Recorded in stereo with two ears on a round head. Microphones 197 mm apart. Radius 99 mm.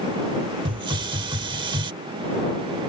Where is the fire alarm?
No fire alarm in this recording.